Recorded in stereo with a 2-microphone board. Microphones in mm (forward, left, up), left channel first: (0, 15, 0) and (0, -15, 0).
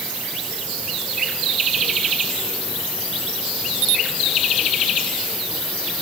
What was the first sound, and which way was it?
Only background noise.